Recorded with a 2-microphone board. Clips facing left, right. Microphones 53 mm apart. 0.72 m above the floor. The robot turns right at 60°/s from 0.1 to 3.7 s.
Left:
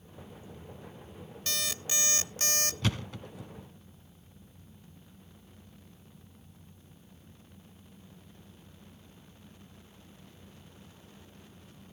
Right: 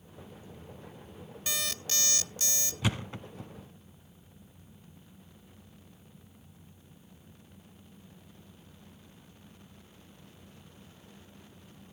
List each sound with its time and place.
1.5 s an alarm clock: 10° right, 0.6 m; by 2.7 s 65° left, 0.6 m
2.8 s a thud: 10° right (ahead or behind), 1.1 m; by 3.5 s 45° right (ahead or behind), 1.1 m